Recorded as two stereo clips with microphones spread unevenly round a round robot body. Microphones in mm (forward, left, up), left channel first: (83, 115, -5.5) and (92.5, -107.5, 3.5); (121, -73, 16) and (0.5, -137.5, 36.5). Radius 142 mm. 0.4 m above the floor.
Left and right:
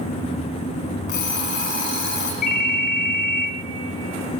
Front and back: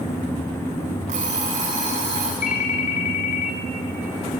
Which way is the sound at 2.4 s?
45° left.